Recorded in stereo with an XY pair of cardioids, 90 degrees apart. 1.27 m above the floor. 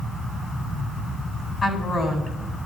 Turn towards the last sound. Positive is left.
turn(degrees=35)